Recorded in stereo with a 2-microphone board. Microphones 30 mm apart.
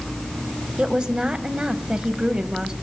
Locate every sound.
0.8 s a woman speaking: 30° right (ahead or behind), 1.5 m